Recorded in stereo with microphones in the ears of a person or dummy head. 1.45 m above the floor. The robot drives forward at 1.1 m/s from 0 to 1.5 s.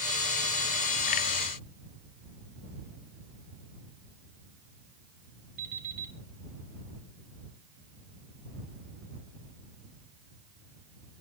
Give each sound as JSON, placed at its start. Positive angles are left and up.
{"t": 5.6, "sound": "an alarm clock", "side_deg": -50, "distance_m": 4.0}